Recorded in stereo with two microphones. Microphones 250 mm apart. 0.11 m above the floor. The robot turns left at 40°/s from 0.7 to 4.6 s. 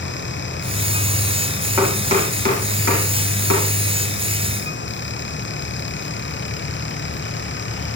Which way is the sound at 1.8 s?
10° right (ahead or behind).